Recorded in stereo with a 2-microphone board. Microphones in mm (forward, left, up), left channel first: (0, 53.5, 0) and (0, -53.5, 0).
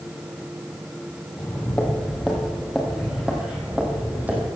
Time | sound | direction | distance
1.3 | footsteps | 15° left (ahead or behind) | 3 m